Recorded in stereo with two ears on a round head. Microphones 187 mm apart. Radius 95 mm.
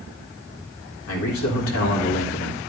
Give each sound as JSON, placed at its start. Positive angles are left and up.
{"t": 1.1, "sound": "a man speaking", "side_deg": 80, "distance_m": 3.5}